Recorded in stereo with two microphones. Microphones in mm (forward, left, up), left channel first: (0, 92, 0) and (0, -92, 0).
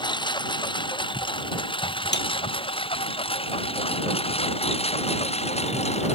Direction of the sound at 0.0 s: 25° left (ahead or behind).